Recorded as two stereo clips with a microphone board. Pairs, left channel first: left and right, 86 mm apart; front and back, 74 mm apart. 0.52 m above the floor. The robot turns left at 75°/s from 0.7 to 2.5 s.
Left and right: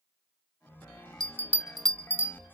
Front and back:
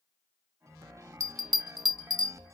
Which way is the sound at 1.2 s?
135° right.